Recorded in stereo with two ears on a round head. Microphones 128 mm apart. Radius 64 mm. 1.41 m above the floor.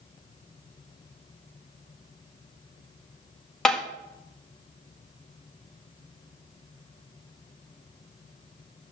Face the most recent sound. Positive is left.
turn(degrees=5)  # may be behind; listen again after turning